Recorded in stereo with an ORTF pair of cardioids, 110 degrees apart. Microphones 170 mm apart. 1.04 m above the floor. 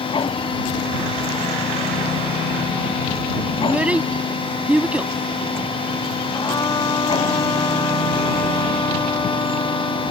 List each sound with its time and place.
0.0 s a machine running: 30° left
3.6 s a child speaking: 5° right
6.3 s a trumpet: 25° left